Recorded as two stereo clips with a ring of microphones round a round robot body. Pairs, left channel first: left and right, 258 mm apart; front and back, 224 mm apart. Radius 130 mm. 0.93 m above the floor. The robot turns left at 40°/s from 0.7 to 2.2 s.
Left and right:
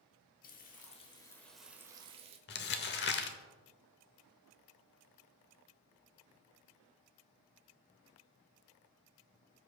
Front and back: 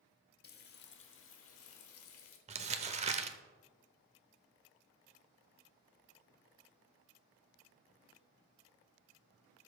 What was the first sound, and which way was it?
Frying, 35° left.